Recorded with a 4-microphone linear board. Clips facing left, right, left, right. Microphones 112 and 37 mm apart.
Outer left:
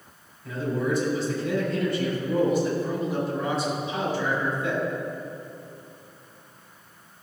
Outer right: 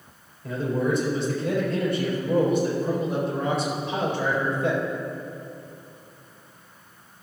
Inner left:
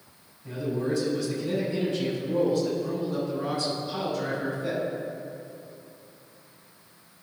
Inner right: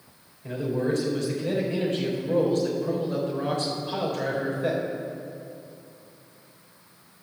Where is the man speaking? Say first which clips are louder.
Outer right 2 dB, inner right 2 dB; 60° right (ahead or behind), 4 m.